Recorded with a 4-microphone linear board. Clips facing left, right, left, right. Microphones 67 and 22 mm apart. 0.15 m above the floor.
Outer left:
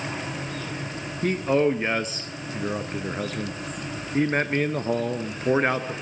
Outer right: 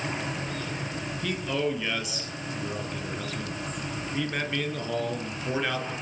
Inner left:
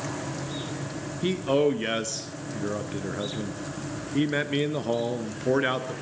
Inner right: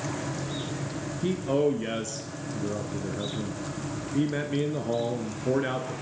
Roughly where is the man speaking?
Left.